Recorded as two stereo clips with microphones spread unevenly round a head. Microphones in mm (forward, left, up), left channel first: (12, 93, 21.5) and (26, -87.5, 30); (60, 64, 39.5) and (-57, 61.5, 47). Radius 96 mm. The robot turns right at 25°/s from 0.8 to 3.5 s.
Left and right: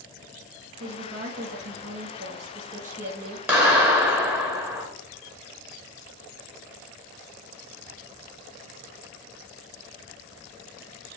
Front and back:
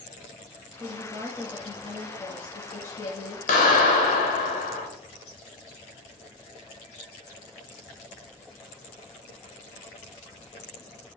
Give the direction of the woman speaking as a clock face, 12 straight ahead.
3 o'clock.